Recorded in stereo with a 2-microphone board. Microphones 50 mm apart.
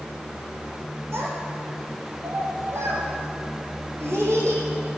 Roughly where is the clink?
No clink in this recording.